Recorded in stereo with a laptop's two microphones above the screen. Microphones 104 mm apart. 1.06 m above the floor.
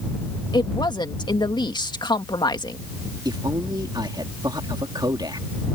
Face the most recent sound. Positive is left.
turn(degrees=-40)  # may be behind; listen again after turning